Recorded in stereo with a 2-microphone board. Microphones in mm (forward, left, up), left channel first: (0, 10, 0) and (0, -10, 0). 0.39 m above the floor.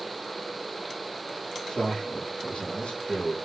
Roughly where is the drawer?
No drawer in this recording.